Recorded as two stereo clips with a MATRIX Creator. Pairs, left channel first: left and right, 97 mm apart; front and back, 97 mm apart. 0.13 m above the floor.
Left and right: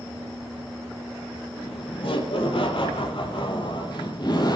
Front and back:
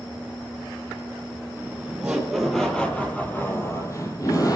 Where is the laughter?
110° left, 3.5 m; by 4.6 s 50° left, 4.5 m.